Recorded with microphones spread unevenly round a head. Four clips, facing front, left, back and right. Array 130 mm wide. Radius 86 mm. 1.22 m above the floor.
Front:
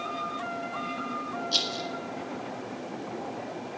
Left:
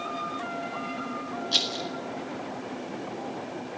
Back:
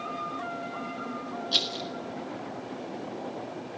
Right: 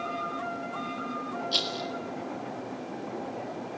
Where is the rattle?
170° right, 1.6 m.